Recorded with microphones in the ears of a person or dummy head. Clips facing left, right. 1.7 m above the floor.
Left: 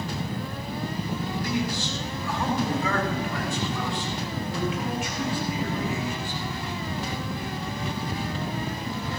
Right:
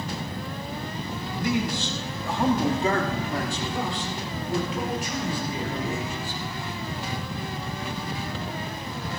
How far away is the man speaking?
About 2.5 m.